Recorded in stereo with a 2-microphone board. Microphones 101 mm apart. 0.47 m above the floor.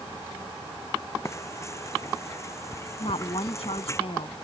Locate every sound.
1.2 s frying: 30° left (ahead or behind)
3.0 s a woman speaking: 75° left (ahead or behind)